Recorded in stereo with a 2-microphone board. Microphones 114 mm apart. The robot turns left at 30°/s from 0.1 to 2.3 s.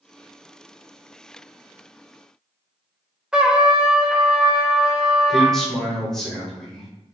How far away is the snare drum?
I don't hear a snare drum.